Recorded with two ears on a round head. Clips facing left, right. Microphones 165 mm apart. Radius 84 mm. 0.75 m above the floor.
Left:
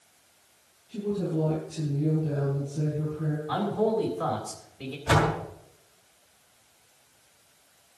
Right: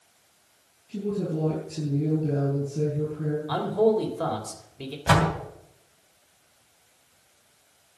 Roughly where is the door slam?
Right.